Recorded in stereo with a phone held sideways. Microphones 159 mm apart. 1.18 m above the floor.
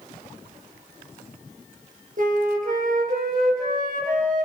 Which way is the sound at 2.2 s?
55° right (ahead or behind).